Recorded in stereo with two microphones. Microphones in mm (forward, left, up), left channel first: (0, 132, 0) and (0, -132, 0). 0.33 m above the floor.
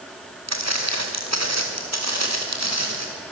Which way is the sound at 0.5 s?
75° right (ahead or behind).